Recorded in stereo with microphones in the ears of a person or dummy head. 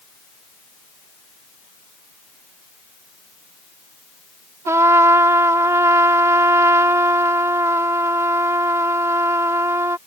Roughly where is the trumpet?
Centre.